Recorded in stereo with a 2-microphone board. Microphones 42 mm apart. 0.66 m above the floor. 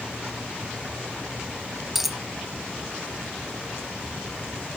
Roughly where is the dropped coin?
Centre.